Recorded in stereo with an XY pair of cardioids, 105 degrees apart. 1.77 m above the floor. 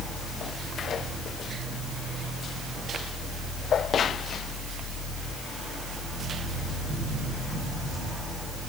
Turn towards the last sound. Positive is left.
turn(degrees=-55)